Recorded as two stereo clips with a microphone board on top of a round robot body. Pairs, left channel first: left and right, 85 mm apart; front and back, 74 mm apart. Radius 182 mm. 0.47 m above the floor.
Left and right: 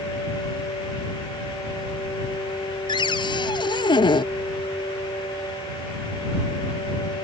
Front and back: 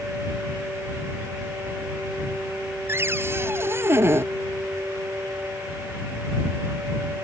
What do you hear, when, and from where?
2.9 s a cupboard door: 120° left